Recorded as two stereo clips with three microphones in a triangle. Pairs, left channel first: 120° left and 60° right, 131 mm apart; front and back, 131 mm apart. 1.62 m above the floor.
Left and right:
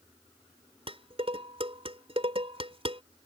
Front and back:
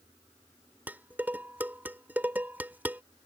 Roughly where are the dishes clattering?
Right.